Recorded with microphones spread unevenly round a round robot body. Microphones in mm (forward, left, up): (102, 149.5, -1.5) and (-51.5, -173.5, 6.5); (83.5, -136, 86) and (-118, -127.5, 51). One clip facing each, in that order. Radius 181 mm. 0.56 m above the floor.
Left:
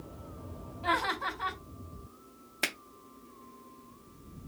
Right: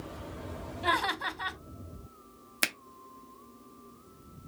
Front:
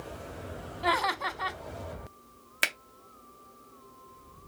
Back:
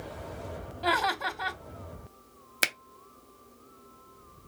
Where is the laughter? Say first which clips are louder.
Even, back 1 dB; 100° right, 1.3 m.